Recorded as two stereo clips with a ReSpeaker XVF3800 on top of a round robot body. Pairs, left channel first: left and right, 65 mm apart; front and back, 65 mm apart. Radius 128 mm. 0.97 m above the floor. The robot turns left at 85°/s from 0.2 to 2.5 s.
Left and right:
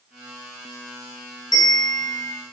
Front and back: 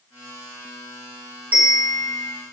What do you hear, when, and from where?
1.5 s a bell: 110° left, 0.6 m; by 2.3 s 40° left, 0.6 m